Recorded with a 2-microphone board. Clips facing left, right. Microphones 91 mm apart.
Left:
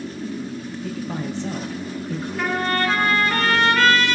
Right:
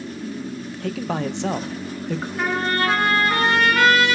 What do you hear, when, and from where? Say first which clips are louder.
0.8 s a man speaking: right 5 dB; 75° right (ahead or behind), 0.5 m
2.4 s a trumpet: even; 15° right (ahead or behind), 3 m